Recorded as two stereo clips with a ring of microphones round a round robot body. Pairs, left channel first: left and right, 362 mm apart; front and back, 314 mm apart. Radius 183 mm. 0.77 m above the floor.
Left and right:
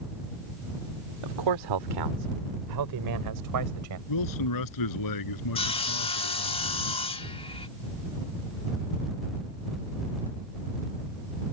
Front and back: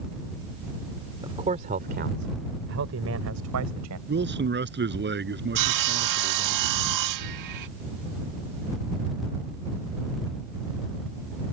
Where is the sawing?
165° left.